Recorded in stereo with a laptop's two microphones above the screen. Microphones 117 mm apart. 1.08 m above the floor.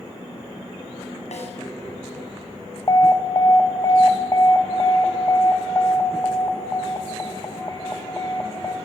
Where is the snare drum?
70° left (ahead or behind), 7.5 m.